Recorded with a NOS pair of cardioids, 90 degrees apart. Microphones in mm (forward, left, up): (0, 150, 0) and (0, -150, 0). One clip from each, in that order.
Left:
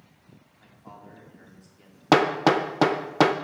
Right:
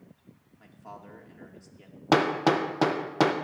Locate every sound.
0.6 s a man speaking: 20° right, 2.5 m
2.1 s hammering: 20° left, 0.8 m